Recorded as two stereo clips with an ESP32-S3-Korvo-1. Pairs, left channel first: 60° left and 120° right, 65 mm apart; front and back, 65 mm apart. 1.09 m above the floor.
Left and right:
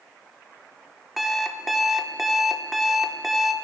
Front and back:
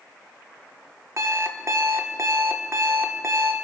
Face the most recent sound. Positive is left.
turn(degrees=150)